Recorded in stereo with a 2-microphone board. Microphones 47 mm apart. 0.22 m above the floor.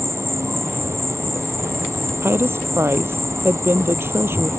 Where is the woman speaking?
55° right (ahead or behind).